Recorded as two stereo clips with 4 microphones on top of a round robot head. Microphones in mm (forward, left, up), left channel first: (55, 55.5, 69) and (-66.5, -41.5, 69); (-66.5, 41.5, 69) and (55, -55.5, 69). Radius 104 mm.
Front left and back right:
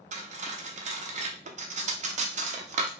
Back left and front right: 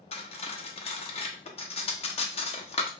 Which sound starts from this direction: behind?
Cutlery clinking, at 0.1 s.